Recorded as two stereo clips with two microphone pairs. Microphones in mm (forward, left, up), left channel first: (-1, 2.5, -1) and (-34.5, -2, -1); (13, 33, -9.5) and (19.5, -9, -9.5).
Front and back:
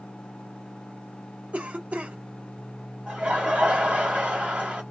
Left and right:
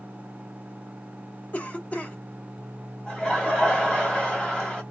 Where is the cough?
145° left, 0.8 m.